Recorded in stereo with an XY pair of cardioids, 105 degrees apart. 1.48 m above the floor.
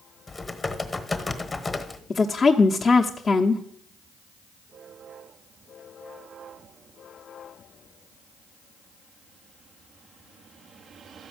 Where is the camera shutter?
No camera shutter in this recording.